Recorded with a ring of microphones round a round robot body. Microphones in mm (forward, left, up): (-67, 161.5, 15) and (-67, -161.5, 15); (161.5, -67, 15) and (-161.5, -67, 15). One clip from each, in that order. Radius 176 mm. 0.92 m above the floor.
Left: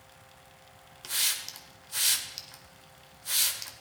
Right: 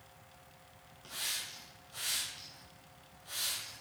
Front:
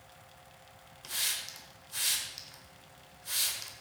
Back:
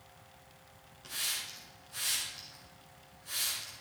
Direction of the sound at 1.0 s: 70° left.